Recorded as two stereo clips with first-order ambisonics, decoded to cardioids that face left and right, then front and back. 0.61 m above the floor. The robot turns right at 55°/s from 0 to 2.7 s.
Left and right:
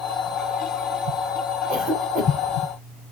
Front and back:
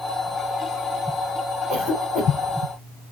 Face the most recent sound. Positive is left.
turn(degrees=-35)